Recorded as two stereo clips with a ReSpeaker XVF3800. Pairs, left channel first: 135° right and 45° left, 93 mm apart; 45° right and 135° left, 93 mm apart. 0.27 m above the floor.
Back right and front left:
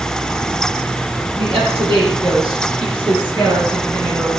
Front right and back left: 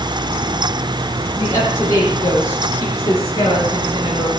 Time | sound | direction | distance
1.4 | a woman speaking | 15° left | 10 m